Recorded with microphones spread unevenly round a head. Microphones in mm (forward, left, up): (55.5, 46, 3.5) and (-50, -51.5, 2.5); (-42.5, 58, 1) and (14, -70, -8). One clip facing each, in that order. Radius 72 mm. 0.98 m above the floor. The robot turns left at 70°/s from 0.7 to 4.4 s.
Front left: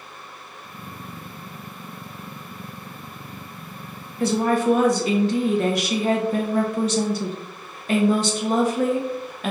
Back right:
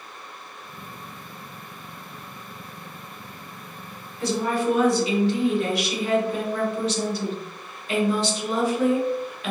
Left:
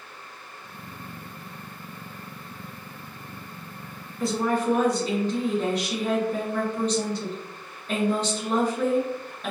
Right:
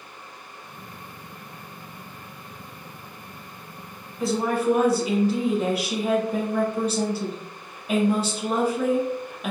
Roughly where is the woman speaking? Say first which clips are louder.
Front left 4 dB, right 1 dB; ahead left.